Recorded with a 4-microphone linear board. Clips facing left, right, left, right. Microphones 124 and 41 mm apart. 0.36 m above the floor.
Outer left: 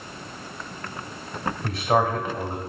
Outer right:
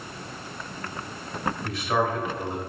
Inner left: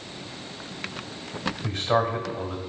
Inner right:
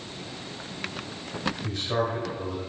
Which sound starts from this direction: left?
A man speaking, at 1.6 s.